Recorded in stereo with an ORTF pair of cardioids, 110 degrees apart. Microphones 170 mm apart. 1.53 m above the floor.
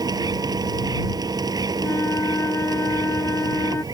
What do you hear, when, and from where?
0.0 s a machine running: 25° right
1.8 s a flute: 15° left